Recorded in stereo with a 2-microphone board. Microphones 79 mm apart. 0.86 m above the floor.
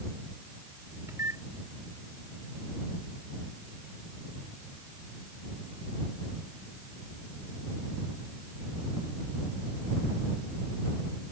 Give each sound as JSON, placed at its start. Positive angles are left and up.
{"t": 1.1, "sound": "a microwave", "side_deg": -35}